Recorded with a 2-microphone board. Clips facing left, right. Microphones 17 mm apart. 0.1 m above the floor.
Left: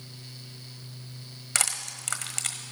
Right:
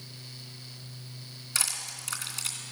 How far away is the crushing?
About 1.3 m.